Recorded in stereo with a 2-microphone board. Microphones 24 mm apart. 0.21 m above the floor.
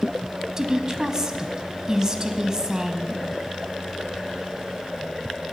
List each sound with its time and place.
0.6 s a woman speaking: 30° right (ahead or behind), 1.1 m